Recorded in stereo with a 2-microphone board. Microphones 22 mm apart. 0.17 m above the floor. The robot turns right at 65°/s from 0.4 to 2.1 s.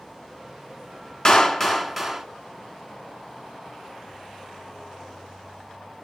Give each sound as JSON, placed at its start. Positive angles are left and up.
{"t": 1.2, "sound": "a clap", "azimuth_deg": 130, "distance_m": 1.2}